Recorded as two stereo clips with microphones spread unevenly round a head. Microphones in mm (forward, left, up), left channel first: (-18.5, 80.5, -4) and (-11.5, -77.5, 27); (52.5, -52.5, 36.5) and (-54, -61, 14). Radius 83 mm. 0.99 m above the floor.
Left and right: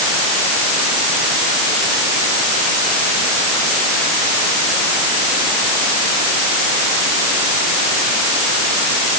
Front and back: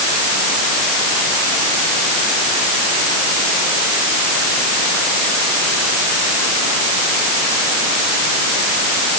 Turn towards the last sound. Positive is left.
No sound to turn to.